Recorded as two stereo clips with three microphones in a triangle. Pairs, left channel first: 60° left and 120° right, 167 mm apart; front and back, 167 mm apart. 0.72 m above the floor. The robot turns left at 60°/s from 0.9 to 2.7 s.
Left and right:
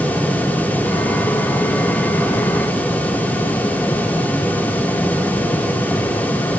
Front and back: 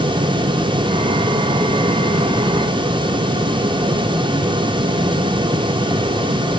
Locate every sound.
Only background noise.